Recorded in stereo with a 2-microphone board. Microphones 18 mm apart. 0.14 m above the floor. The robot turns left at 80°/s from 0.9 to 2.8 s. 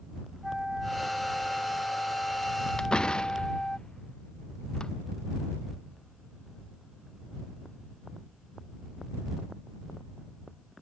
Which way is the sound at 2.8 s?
50° left (ahead or behind).